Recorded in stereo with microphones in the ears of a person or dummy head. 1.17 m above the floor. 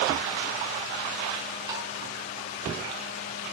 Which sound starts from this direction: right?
Tapping, at 1.7 s.